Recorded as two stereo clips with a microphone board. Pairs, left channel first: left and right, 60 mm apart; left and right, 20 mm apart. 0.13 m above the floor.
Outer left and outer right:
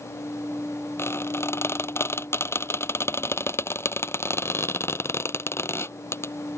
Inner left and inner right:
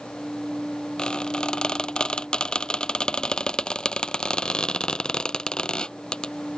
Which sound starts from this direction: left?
A squeak, at 1.0 s.